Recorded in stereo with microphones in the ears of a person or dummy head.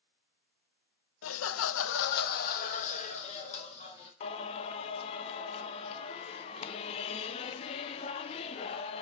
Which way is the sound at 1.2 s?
75° left (ahead or behind).